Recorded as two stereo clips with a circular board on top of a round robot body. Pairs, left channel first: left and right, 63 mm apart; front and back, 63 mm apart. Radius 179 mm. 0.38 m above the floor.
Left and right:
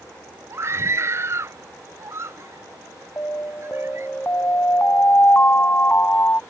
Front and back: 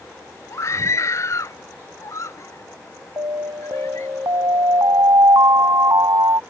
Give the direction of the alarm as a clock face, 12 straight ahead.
7 o'clock.